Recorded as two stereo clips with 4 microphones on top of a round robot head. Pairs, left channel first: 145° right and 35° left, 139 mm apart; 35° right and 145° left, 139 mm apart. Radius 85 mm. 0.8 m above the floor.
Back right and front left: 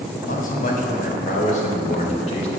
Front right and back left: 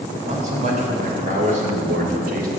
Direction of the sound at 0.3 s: 175° right.